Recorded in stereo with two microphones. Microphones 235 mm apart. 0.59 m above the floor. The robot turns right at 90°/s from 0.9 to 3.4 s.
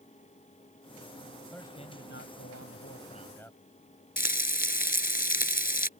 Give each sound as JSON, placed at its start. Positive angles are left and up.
{"t": 1.5, "sound": "a man speaking", "azimuth_deg": 0}
{"t": 4.2, "sound": "frying", "side_deg": 40}